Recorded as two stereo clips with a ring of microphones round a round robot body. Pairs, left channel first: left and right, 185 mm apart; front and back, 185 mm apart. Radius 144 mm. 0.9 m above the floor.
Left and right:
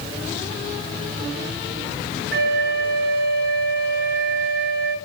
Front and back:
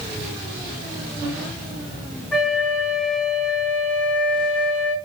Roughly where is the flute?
Right.